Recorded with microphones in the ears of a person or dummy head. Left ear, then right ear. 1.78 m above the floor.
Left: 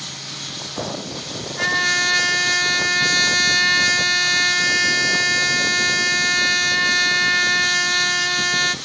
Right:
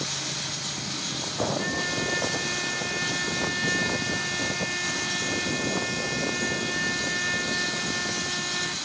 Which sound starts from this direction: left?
A trumpet, at 1.6 s.